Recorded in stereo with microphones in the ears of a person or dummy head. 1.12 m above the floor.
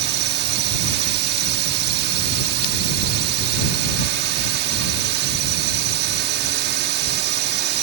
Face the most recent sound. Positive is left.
turn(degrees=-55)  # may be behind; listen again after turning